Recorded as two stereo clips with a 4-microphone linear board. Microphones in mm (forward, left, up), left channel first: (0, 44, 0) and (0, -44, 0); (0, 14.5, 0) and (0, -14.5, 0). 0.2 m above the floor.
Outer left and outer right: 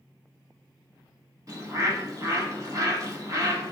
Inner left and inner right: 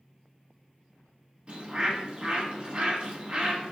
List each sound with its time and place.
1.5 s a bird: 40° right (ahead or behind), 1.0 m